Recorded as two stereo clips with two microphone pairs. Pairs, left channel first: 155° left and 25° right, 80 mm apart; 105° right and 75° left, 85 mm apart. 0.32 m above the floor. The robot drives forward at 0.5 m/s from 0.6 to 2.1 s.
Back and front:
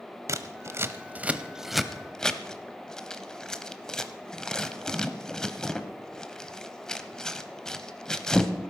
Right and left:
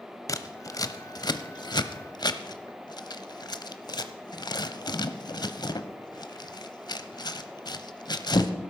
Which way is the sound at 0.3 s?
65° right.